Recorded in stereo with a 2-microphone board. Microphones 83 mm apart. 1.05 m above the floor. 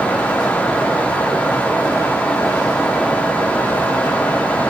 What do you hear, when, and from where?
Only background noise.